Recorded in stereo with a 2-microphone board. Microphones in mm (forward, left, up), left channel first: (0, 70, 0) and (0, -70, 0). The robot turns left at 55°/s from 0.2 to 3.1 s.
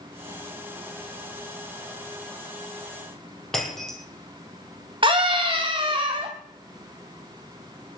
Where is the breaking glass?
5° left (ahead or behind), 3.5 m.